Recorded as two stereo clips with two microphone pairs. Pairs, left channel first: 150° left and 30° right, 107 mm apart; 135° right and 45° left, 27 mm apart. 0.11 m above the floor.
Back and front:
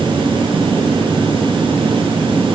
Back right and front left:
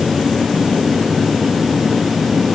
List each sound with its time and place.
Only background noise.